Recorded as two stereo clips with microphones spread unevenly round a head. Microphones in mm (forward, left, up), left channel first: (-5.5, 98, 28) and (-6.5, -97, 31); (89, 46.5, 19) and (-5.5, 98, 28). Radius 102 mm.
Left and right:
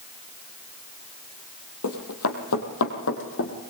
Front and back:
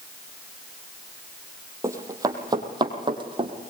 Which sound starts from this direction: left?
Running footsteps, at 1.8 s.